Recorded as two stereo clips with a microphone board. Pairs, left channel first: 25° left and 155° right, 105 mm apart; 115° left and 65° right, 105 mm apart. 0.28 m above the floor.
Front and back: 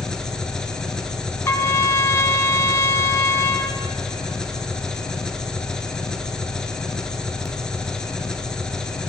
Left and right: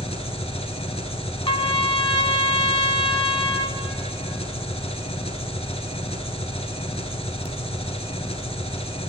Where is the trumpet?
85° left, 0.7 m.